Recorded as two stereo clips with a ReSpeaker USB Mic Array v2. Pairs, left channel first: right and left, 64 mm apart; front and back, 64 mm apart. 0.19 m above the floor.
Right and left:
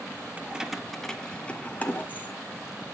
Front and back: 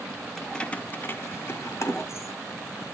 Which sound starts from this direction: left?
Keys jangling, at 0.4 s.